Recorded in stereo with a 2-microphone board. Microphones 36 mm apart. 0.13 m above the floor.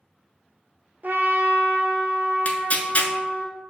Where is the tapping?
I don't hear tapping.